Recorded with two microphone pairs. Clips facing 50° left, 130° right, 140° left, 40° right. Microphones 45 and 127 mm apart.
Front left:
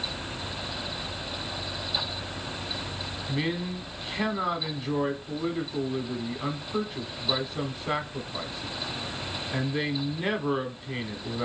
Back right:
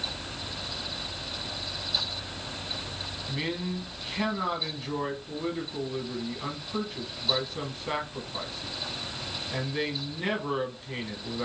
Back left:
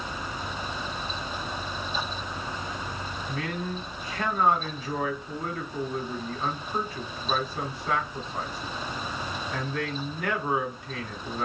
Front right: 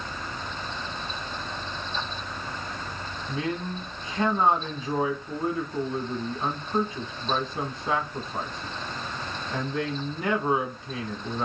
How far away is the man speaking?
About 1.0 m.